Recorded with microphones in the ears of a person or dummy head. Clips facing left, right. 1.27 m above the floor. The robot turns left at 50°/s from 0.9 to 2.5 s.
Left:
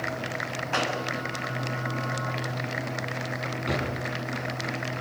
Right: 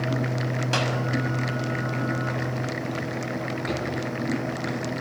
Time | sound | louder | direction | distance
0.7 | a clap | even | 55° right (ahead or behind) | 6.5 m
3.7 | a drawer | left 1 dB | centre (ahead or behind) | 7 m